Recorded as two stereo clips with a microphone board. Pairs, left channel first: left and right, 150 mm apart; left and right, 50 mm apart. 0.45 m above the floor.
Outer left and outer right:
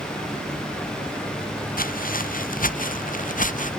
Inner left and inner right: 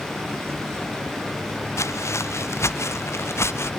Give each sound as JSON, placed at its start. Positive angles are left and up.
{"t": 1.8, "sound": "footsteps", "side_deg": 75}